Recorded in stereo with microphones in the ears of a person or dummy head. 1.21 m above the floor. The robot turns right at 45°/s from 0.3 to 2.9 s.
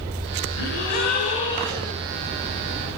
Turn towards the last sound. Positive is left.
turn(degrees=-145)